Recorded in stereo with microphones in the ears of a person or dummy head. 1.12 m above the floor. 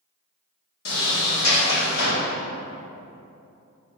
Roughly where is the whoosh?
I don't hear a whoosh.